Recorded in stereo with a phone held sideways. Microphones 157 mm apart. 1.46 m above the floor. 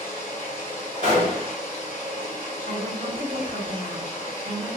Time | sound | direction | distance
0.0 | running water | 30° right (ahead or behind) | 1.7 m
1.0 | a gunshot | 55° right (ahead or behind) | 1.6 m
2.7 | a woman speaking | 70° right (ahead or behind) | 1.8 m